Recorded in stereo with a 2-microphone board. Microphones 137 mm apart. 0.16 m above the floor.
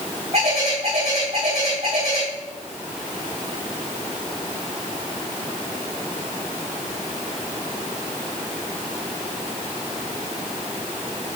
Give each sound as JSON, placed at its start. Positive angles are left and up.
{"t": 0.3, "sound": "a bird", "side_deg": -50, "distance_m": 3.5}